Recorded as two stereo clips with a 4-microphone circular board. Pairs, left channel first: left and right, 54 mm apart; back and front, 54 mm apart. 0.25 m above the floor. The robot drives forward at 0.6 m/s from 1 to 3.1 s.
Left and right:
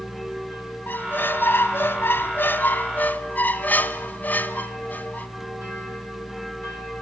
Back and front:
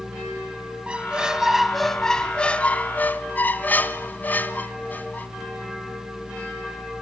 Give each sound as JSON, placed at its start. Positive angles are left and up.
{"t": 0.9, "sound": "a squeak", "azimuth_deg": 60, "distance_m": 1.2}